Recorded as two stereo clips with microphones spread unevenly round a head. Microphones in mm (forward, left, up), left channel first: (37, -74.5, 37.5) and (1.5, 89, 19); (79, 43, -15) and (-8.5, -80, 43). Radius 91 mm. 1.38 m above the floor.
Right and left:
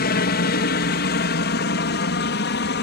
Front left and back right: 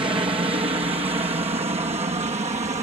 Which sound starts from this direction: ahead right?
A helicopter, at 0.0 s.